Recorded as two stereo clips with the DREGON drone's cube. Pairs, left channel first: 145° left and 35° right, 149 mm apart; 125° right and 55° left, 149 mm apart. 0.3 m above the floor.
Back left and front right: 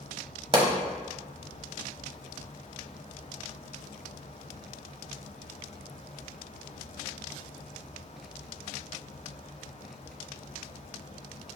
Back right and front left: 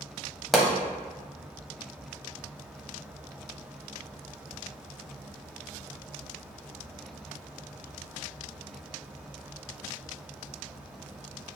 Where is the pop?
35° right, 0.9 m.